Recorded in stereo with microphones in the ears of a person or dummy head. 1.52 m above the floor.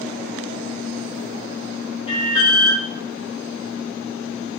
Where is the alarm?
25° left (ahead or behind), 1.0 m.